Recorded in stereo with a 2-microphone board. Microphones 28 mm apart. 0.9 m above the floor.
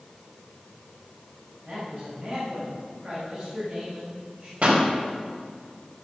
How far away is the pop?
About 4 m.